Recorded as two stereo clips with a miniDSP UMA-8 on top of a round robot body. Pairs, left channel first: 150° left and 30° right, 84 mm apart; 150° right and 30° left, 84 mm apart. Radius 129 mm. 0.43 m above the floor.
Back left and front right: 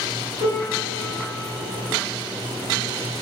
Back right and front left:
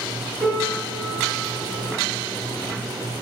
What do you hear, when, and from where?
0.4 s a piano: 130° left, 1.7 m